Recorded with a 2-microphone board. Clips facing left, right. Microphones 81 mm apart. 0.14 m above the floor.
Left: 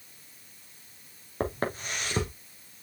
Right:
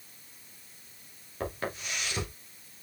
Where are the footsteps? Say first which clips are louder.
Left 4 dB; 40° left (ahead or behind), 3 m.